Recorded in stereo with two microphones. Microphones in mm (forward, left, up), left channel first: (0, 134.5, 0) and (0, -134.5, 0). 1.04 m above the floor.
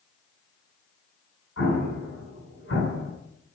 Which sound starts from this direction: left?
An explosion, at 1.6 s.